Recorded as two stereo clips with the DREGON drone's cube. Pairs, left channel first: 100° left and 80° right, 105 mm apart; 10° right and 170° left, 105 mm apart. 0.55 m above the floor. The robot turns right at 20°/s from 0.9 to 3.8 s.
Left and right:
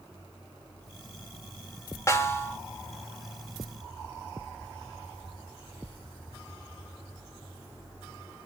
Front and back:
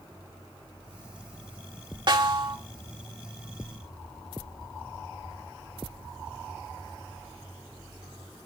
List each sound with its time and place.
2.1 s a snare drum: 150° left, 1.8 m; by 2.6 s 160° left, 1.8 m